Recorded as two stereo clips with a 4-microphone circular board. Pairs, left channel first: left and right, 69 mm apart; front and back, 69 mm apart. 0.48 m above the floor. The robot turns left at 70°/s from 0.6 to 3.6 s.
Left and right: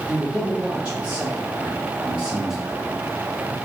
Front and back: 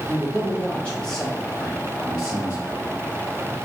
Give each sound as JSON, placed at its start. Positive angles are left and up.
{"t": 0.1, "sound": "a man speaking", "azimuth_deg": -25, "distance_m": 1.4}